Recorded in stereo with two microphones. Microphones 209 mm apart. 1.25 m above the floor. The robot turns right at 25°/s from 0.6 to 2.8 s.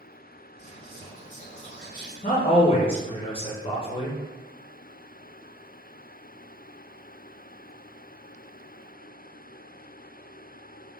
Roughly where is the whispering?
Behind left.